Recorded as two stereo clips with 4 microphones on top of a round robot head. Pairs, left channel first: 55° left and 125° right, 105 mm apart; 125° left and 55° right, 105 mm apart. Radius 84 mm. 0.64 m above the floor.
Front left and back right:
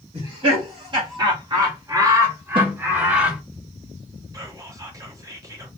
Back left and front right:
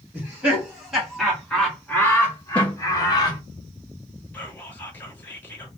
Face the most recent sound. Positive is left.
turn(degrees=-170)